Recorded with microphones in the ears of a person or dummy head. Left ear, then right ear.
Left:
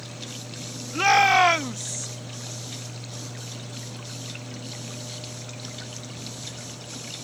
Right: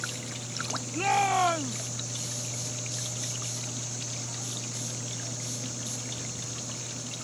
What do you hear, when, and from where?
0.9 s a shout: 55° left (ahead or behind); by 2.1 s 80° left